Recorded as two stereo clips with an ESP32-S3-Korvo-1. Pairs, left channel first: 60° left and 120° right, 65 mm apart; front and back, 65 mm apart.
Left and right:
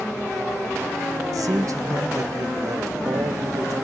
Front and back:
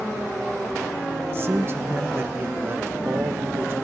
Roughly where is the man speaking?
Behind right.